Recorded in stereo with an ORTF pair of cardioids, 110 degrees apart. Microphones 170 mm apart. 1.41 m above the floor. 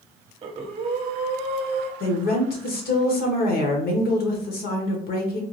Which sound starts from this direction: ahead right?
Breathing, at 0.4 s.